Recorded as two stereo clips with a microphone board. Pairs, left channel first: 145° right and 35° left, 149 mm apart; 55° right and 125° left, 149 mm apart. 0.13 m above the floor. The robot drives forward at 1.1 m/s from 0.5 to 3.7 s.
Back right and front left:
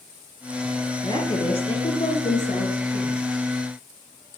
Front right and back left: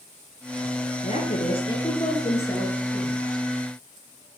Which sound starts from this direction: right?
A woman speaking, at 1.0 s.